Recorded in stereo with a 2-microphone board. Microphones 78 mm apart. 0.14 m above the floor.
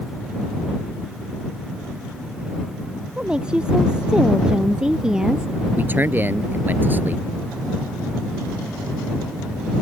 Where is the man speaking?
25° right (ahead or behind).